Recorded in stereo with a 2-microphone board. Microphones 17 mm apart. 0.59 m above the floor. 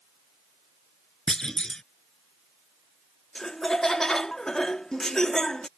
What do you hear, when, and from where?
1.3 s a clunk: 45° left (ahead or behind)
3.4 s laughter: 30° left (ahead or behind)